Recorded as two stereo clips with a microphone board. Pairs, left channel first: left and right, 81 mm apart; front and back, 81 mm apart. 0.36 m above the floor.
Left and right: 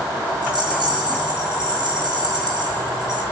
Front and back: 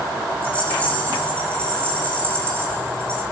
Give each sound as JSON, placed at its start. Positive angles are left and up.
{"t": 0.4, "sound": "a rattle", "azimuth_deg": -75, "distance_m": 4.5}